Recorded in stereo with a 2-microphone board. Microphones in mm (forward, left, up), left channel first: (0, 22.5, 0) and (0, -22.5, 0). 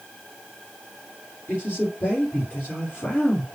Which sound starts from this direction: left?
A man speaking, at 1.5 s.